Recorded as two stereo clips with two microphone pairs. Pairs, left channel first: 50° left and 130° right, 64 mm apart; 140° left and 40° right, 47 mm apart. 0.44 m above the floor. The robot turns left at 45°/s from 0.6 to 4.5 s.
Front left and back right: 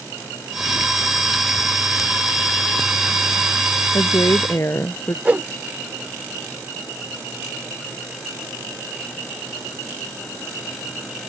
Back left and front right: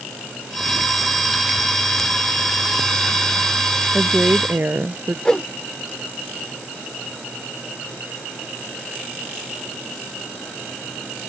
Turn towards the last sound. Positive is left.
turn(degrees=-160)